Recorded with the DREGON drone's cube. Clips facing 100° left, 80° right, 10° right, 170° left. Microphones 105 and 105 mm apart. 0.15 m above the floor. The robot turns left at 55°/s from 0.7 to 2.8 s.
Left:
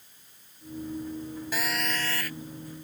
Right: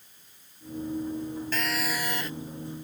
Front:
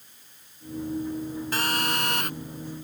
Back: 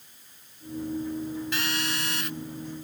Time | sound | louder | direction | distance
1.5 | a phone buzzing | left 1 dB, front 3 dB | 20° left | ?